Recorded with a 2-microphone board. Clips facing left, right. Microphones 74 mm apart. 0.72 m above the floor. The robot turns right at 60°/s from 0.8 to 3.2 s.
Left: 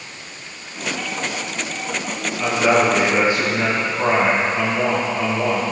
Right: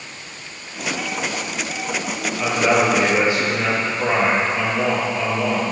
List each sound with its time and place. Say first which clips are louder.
2.4 s a man speaking: left 1 dB; 5° right, 6 m; by 5.6 s 40° left, 6 m